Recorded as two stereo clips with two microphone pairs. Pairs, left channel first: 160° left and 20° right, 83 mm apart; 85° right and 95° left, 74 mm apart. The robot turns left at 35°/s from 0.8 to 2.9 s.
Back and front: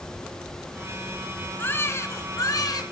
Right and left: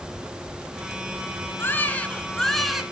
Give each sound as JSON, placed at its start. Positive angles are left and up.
{"t": 1.6, "sound": "a baby crying", "azimuth_deg": -140, "distance_m": 1.9}